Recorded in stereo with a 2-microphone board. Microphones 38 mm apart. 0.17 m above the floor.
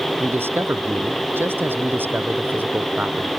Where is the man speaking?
70° right (ahead or behind); by 3.3 s 45° right (ahead or behind).